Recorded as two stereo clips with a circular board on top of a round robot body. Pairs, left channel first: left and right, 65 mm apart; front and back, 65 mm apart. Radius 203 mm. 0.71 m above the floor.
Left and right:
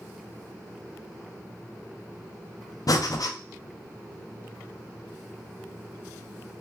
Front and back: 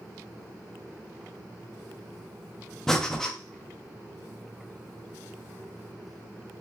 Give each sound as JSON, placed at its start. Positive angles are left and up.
{"t": 2.9, "sound": "breathing", "azimuth_deg": 85, "distance_m": 0.6}